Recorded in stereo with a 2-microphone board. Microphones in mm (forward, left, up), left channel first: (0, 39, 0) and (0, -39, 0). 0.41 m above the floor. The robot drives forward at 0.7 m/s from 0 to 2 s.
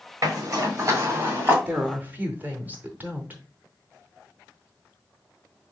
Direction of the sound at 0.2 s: 55° right (ahead or behind).